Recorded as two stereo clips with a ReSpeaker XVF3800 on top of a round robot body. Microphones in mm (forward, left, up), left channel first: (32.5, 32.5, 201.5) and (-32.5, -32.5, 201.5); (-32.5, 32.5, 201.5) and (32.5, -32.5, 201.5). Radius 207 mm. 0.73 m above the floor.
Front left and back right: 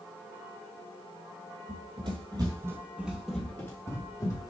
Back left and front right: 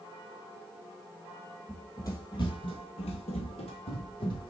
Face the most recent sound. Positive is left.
turn(degrees=100)